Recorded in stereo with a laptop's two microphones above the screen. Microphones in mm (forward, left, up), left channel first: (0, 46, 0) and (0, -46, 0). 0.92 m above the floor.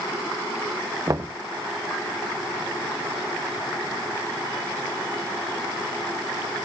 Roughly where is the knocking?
Right.